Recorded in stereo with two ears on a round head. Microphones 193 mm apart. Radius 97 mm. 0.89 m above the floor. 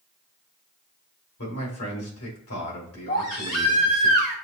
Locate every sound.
1.4 s a man speaking: 70° left (ahead or behind), 2.5 m
3.1 s a baby crying: 40° left (ahead or behind), 1.5 m